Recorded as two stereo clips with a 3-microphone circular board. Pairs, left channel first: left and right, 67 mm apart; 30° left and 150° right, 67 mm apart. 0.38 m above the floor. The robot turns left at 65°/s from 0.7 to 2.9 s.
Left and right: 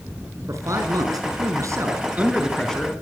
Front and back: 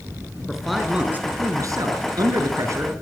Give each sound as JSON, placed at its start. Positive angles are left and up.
{"t": 0.5, "sound": "a man speaking", "azimuth_deg": -60, "distance_m": 5.5}